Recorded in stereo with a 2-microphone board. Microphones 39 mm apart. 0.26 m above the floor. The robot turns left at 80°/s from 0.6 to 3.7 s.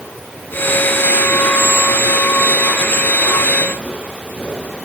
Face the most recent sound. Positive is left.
No sound to turn to.